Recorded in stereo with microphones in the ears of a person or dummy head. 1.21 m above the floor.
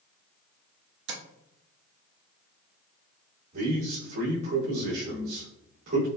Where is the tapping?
65° right (ahead or behind), 1.2 m.